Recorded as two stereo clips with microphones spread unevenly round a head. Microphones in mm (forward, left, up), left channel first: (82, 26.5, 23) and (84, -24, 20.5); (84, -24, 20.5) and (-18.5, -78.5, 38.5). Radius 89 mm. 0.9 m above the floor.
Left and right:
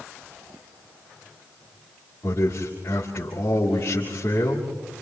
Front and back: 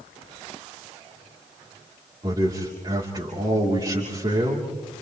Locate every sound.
2.2 s a man speaking: 145° left, 3 m